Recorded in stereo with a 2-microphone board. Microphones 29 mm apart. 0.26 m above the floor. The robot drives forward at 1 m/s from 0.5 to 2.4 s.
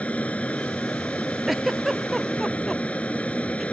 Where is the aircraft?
50° left (ahead or behind).